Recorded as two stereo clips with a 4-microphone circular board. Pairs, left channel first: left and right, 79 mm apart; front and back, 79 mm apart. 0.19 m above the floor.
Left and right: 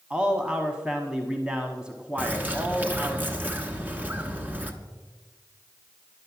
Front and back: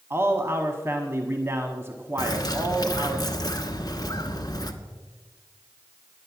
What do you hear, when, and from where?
0.1 s a man speaking: 160° right, 1.1 m
2.2 s a bird: 25° right, 1.2 m